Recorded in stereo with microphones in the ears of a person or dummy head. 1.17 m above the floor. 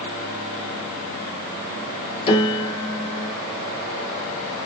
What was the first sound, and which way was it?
A piano, 30° left (ahead or behind).